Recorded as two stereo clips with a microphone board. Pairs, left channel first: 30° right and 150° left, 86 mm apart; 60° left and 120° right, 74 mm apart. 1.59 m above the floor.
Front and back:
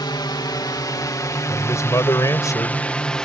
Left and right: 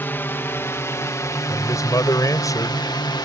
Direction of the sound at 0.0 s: Straight ahead.